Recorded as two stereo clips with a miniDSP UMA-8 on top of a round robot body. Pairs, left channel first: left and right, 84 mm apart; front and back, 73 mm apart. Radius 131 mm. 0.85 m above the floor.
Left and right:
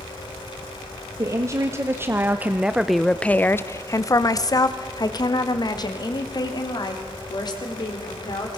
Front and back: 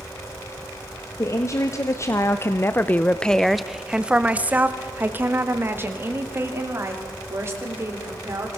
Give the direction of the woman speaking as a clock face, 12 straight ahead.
1 o'clock.